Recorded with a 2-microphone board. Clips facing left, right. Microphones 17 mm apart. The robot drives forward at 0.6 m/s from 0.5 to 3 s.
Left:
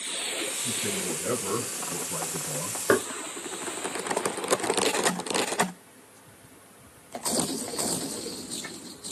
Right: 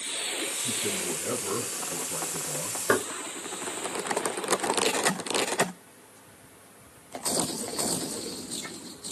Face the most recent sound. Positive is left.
turn(degrees=0)  # may be behind; listen again after turning